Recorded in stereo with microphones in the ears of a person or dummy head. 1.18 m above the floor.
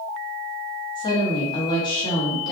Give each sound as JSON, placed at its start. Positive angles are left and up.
{"t": 0.9, "sound": "a woman speaking", "side_deg": 20, "distance_m": 1.0}